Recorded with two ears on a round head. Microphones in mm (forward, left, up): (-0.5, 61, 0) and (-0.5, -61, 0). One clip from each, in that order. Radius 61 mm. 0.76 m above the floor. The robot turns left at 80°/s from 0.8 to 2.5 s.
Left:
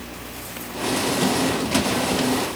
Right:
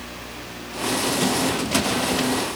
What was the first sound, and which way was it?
Only background noise.